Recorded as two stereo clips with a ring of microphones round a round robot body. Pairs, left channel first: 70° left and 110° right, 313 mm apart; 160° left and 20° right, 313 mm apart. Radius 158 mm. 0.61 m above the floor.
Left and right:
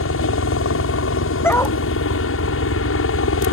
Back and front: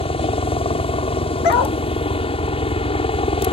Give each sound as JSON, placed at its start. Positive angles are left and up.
{"t": 0.0, "sound": "a helicopter", "azimuth_deg": 90}
{"t": 1.4, "sound": "a dog barking", "azimuth_deg": 150}